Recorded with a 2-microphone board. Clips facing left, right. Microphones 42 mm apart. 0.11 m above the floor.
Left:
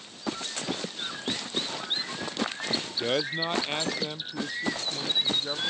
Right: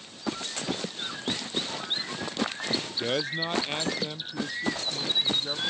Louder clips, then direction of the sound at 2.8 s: Left 2 dB; 10° left (ahead or behind).